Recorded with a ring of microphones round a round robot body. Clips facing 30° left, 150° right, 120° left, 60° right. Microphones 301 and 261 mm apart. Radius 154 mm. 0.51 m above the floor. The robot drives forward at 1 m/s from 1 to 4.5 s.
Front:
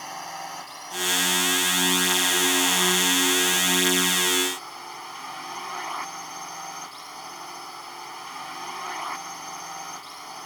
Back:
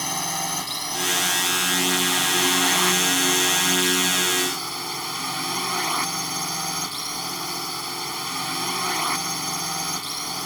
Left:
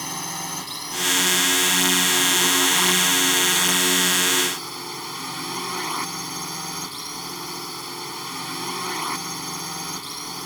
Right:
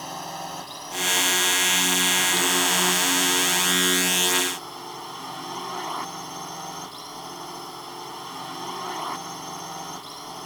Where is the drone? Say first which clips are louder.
Back 8 dB, left 2 dB; straight behind.